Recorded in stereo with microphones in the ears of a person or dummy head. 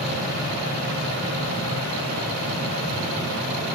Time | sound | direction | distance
0.0 | a fan | 45° right (ahead or behind) | 1.4 m